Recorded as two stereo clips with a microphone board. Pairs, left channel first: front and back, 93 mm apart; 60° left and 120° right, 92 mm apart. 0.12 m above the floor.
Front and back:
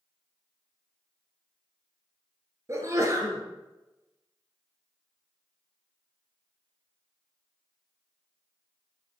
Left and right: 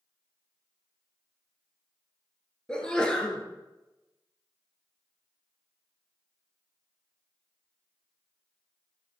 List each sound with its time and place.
2.7 s a sneeze: 140° left, 1.5 m